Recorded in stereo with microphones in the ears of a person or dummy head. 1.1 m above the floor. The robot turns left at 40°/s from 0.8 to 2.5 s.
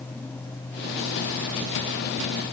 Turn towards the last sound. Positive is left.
No sound to turn to.